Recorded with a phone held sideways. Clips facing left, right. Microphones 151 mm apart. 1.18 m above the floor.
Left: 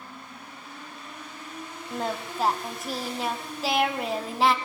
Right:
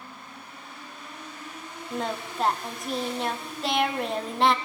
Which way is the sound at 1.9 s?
5° left (ahead or behind).